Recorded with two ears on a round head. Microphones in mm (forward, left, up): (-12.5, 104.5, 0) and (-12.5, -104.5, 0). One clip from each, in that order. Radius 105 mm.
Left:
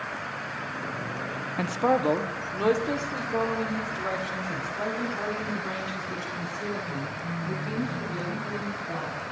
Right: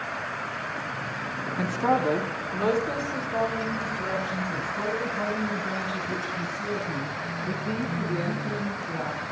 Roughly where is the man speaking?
Left.